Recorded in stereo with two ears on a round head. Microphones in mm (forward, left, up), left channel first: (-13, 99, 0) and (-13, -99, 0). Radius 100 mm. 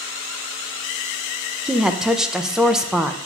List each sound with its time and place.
1.6 s a woman speaking: 5° right (ahead or behind), 0.5 m